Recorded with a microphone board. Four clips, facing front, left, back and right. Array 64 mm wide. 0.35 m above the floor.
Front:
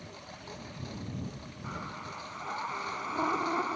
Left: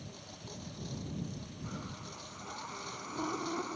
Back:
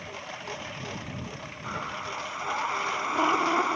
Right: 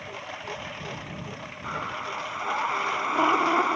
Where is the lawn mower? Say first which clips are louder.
Right 13 dB, back 8 dB; 120° right.